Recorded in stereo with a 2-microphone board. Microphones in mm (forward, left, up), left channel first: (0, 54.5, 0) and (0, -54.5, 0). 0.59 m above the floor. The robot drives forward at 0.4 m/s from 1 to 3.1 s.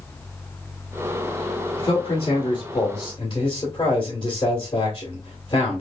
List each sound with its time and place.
1.8 s a man speaking: 40° left (ahead or behind), 1.4 m; by 5.8 s 35° left (ahead or behind), 1.7 m